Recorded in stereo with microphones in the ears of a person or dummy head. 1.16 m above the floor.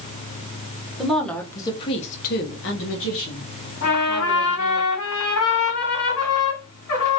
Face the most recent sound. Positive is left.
turn(degrees=65)  # may be behind; listen again after turning